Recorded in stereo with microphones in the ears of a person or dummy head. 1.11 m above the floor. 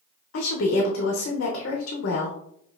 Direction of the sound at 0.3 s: 65° left (ahead or behind).